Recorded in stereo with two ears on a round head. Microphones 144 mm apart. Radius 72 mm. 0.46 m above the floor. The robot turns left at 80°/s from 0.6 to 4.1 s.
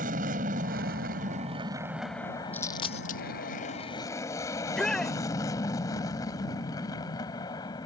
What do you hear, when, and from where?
0.0 s an aircraft: 55° right (ahead or behind); by 7.9 s 25° left (ahead or behind)
2.5 s a dropped coin: 10° left (ahead or behind); by 3.2 s 60° left (ahead or behind)
4.6 s a shout: 5° left (ahead or behind)